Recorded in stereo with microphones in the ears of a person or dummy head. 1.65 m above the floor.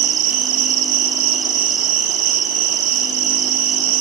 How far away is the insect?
About 3 m.